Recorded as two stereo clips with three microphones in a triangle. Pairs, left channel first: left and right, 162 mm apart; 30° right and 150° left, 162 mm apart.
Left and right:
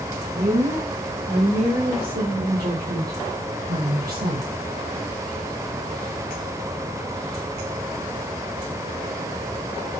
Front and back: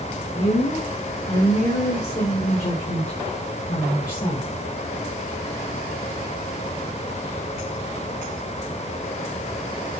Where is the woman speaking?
65° right, 5 m; by 4.5 s 95° right, 3 m.